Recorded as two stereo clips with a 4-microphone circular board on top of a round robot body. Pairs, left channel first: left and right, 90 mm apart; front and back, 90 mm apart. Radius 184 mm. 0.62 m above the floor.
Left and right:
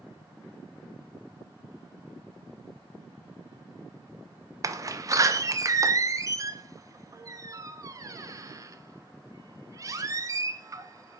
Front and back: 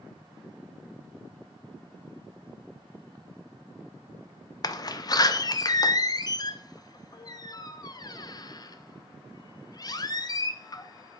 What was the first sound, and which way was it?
A door slam, 40° right.